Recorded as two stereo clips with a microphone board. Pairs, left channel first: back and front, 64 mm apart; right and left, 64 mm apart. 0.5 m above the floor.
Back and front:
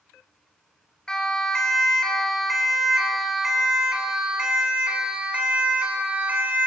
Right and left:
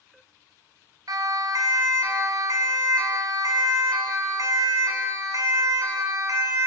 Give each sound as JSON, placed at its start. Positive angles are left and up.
{"t": 1.1, "sound": "a siren", "azimuth_deg": 100, "distance_m": 5.5}